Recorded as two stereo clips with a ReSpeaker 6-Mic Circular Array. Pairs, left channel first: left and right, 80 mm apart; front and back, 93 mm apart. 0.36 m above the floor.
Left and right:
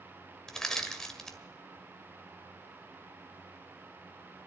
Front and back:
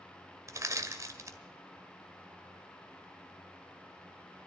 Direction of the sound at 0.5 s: 170° left.